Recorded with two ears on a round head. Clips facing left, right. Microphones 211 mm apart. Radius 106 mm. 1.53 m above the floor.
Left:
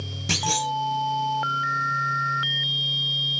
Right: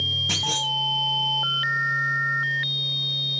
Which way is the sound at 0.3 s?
30° left (ahead or behind).